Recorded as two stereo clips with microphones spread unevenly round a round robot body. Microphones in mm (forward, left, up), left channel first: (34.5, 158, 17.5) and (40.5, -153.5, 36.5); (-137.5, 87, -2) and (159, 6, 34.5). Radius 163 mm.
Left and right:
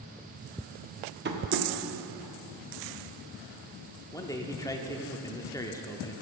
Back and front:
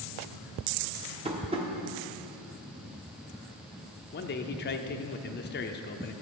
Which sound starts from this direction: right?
Tapping, at 1.2 s.